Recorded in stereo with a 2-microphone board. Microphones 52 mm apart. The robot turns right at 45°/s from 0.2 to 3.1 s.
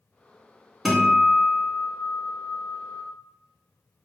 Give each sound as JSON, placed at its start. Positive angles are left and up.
{"t": 0.8, "sound": "a guitar", "azimuth_deg": 0, "distance_m": 0.9}